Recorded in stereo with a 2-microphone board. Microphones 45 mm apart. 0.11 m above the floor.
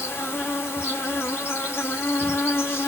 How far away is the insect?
About 0.8 m.